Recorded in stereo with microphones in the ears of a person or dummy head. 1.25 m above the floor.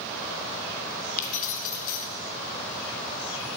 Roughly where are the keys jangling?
Left.